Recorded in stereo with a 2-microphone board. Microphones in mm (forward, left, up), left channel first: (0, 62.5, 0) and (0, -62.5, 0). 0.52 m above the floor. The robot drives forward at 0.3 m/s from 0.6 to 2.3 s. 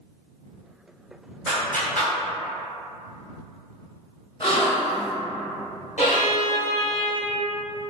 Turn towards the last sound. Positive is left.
turn(degrees=75)  # may be behind; listen again after turning